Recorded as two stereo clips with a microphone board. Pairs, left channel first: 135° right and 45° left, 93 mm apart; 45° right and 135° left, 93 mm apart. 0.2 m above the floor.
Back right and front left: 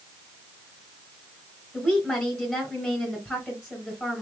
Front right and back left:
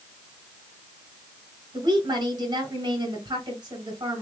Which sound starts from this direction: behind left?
A woman speaking, at 1.7 s.